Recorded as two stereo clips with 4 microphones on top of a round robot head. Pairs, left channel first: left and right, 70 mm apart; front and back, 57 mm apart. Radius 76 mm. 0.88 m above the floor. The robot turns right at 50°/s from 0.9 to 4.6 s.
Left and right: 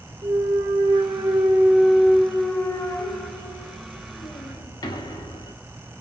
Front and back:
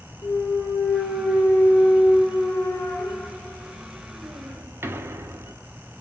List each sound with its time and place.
0.2 s a clunk: 55° right, 0.5 m; by 5.5 s 130° left, 0.5 m